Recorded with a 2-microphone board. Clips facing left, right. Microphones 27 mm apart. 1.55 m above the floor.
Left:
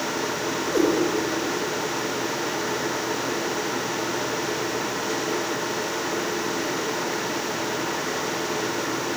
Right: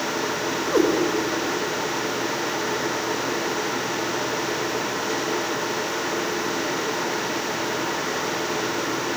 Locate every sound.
0.7 s a cat meowing: 35° right (ahead or behind), 2 m